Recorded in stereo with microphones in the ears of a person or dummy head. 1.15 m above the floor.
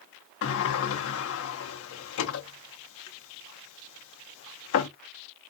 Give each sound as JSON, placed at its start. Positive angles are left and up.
{"t": 0.4, "sound": "a sliding door", "side_deg": 60, "distance_m": 0.6}